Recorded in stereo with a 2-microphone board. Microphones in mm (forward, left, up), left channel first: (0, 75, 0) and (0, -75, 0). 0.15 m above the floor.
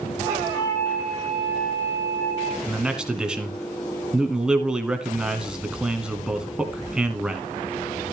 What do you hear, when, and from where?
0.2 s a flute: 15° left (ahead or behind), 7 m
2.7 s a man speaking: 5° right (ahead or behind), 1.4 m